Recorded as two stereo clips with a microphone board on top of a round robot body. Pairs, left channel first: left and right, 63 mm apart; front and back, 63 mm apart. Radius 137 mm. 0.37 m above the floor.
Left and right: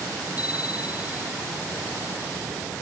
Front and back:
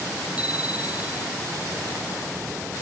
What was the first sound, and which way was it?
A bicycle bell, 110° left.